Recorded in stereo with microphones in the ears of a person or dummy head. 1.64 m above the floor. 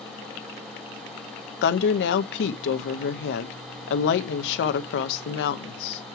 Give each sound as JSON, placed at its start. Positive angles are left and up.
{"t": 1.6, "sound": "a woman speaking", "side_deg": 65, "distance_m": 0.7}